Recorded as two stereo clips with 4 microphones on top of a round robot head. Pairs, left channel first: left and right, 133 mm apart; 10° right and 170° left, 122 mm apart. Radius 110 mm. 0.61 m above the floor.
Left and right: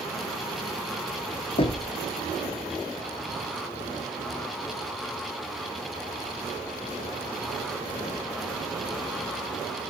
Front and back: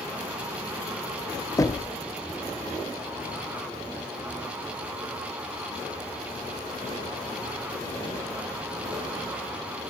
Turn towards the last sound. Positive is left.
turn(degrees=50)